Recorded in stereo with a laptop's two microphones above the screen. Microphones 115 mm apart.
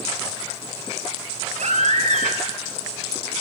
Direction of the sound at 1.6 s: 75° right (ahead or behind).